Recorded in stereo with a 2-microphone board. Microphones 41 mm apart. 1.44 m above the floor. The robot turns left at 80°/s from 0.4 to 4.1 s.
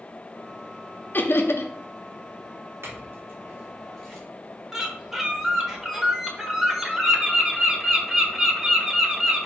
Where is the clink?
80° right, 3 m; by 4.2 s 5° left (ahead or behind), 3 m.